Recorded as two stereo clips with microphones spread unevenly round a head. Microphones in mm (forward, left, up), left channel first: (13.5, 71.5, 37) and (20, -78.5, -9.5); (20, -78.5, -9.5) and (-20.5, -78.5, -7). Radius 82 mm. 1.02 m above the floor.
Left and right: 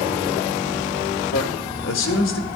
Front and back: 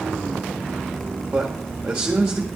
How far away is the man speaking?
About 1.8 m.